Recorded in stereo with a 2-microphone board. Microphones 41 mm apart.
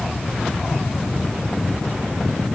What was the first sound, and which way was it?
Only background noise.